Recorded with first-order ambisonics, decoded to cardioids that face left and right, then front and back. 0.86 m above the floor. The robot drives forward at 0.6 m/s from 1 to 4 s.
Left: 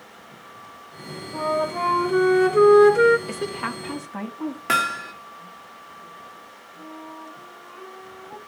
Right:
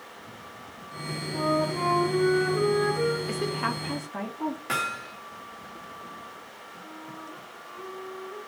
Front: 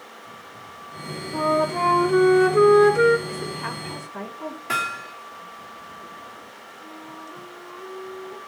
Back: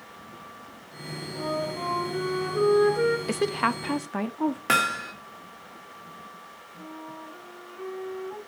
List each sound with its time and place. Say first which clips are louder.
1.3 s a flute: left 3 dB, front 9 dB; 25° left, 1.5 m; by 3.2 s 70° left, 0.7 m
3.3 s a woman speaking: even, back 5 dB; 170° left, 0.7 m; by 4.6 s 175° left, 1.2 m
4.7 s hammering: left 9 dB, back 1 dB; 145° left, 1.1 m
6.8 s a flute: left 5 dB, even; 130° left, 6 m